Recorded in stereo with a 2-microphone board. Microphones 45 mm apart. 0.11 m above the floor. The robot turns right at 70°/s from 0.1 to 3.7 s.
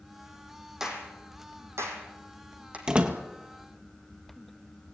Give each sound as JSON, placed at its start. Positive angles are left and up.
{"t": 0.8, "sound": "a clap", "side_deg": -10, "distance_m": 3.5}
{"t": 2.9, "sound": "a door slam", "side_deg": -20, "distance_m": 1.7}